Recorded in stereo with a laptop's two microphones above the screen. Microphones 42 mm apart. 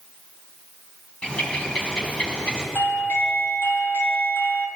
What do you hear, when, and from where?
1.2 s a bird: 20° left (ahead or behind), 3 m
2.8 s a doorbell: 60° left (ahead or behind), 1.4 m